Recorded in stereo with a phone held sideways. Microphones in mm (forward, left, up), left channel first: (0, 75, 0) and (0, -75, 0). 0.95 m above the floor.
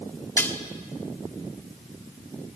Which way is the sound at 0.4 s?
15° left (ahead or behind).